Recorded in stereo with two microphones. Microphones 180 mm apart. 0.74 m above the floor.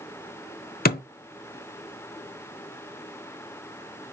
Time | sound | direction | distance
0.8 | a thud | 55° left (ahead or behind) | 0.7 m